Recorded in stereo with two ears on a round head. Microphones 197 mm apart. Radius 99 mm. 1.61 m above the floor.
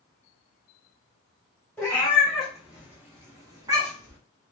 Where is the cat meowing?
5° left (ahead or behind), 1.1 m; by 4.2 s 20° right (ahead or behind), 1.0 m.